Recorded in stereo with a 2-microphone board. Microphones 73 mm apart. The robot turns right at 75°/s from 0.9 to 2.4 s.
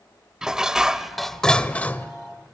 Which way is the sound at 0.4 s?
10° right (ahead or behind).